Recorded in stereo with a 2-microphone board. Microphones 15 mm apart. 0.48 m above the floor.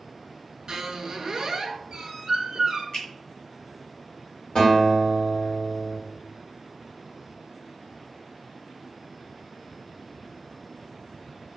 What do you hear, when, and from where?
0.7 s a squeak: 40° right (ahead or behind), 0.5 m
2.9 s a finger snap: 40° left (ahead or behind), 1.5 m
4.5 s a guitar: 60° left (ahead or behind), 1.8 m